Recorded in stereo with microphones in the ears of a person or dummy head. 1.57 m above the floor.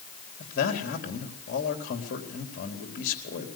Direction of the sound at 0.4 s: 40° left (ahead or behind).